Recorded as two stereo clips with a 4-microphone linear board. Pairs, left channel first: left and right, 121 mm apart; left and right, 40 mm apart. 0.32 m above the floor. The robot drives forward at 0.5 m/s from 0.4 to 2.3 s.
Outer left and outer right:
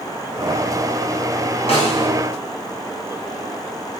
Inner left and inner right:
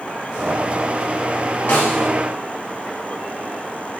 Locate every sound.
1.7 s a snare drum: 60° left (ahead or behind), 3 m